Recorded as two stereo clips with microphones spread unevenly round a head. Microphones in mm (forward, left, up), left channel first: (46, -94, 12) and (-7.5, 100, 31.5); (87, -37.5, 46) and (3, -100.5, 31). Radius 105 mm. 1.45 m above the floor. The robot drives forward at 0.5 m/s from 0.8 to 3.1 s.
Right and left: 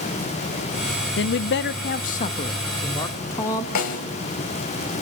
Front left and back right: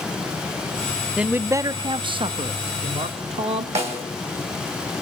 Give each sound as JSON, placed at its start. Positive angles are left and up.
{"t": 1.2, "sound": "a man speaking", "azimuth_deg": -70, "distance_m": 0.6}
{"t": 3.8, "sound": "a snare drum", "azimuth_deg": -125, "distance_m": 3.0}